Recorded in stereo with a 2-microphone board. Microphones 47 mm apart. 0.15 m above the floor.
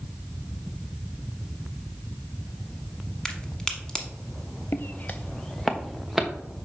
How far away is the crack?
About 1.0 m.